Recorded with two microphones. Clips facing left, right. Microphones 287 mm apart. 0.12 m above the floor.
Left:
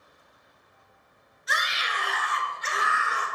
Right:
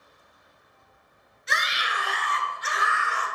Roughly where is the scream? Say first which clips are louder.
Right 1 dB; right.